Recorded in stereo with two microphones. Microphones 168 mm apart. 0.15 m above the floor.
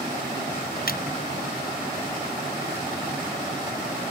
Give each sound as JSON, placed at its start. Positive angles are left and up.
{"t": 0.9, "sound": "a splash", "side_deg": 60}